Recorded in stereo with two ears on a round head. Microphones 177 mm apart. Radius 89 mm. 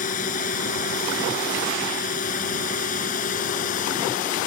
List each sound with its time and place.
0.0 s a drone: 40° left (ahead or behind)